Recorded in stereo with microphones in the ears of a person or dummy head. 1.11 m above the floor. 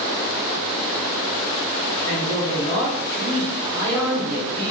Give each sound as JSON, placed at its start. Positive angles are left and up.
{"t": 2.1, "sound": "a man speaking", "side_deg": 0, "distance_m": 0.7}